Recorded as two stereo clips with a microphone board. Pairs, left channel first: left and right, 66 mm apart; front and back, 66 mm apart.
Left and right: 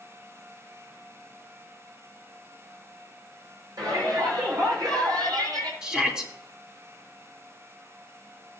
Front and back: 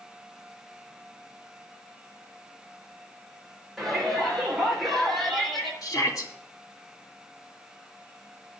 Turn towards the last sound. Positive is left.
turn(degrees=-10)